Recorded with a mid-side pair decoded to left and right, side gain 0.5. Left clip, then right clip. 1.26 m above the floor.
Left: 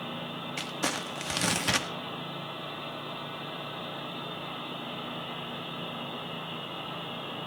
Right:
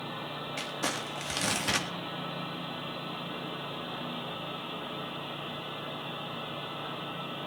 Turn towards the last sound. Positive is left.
turn(degrees=20)